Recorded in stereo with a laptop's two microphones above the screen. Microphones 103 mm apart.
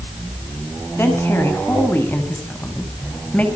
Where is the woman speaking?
25° left (ahead or behind), 8 m; by 3.5 s 15° left (ahead or behind), 6 m.